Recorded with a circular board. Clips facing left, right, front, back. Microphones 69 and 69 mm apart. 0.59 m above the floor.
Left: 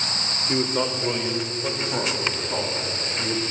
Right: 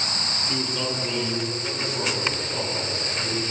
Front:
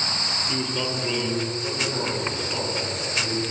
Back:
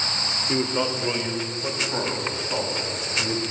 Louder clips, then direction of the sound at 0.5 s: Left 6 dB, back 5 dB; 130° left.